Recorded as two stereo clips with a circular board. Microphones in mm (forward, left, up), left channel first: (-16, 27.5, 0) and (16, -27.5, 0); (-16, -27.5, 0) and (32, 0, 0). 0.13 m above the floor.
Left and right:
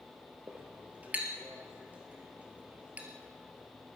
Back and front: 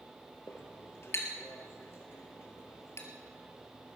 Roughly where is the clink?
Behind right.